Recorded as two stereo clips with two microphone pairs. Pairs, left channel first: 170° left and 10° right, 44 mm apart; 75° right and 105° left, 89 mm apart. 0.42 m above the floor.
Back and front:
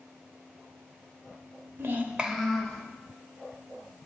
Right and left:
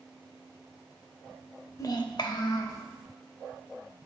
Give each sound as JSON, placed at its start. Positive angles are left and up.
{"t": 1.8, "sound": "a child speaking", "azimuth_deg": -25, "distance_m": 0.7}